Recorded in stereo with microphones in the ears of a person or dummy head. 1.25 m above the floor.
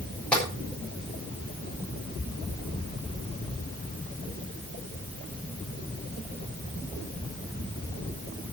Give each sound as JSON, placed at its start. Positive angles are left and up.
{"t": 0.3, "sound": "tapping", "side_deg": 5, "distance_m": 7.0}